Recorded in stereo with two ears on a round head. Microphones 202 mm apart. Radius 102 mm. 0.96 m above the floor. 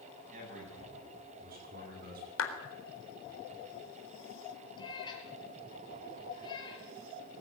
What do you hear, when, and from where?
0.3 s a man speaking: 40° right (ahead or behind), 9.5 m; by 2.3 s 45° right (ahead or behind), 12 m
2.4 s a clap: 60° left (ahead or behind), 3.5 m
4.8 s a cat meowing: 20° left (ahead or behind), 5 m